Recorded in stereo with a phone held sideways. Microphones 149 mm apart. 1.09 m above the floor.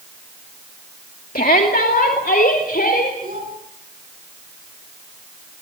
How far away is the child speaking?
About 9.5 m.